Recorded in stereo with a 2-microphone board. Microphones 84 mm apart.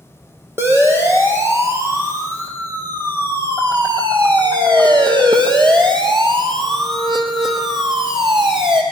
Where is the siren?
25° right (ahead or behind), 4.5 m; by 8.8 s 75° right (ahead or behind), 4.5 m.